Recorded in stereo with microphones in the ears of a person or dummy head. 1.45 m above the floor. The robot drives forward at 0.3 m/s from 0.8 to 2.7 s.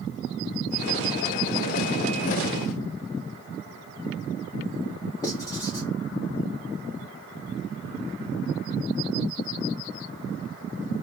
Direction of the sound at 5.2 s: 15° left (ahead or behind).